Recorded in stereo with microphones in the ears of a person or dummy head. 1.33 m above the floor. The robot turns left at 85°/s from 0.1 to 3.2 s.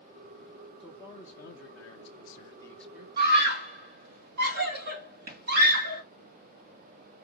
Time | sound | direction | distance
0.8 | a man speaking | 170° left | 1.1 m
3.2 | a scream | 65° right (ahead or behind) | 2.5 m